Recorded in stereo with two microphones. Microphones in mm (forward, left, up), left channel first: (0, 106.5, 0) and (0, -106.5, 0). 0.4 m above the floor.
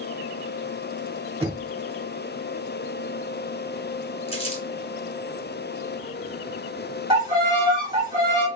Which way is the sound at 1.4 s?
25° right (ahead or behind).